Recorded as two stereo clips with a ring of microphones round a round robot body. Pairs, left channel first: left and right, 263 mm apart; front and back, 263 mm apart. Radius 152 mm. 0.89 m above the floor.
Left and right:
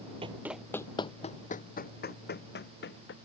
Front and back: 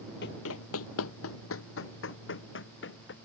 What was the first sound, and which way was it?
Running footsteps, 30° right.